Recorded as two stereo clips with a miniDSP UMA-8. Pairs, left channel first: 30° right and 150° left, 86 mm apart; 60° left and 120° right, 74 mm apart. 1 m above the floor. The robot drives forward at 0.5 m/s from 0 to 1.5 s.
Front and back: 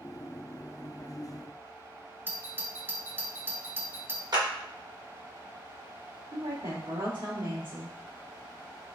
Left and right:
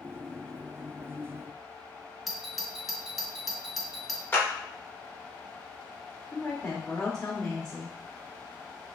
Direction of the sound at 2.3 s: 155° left.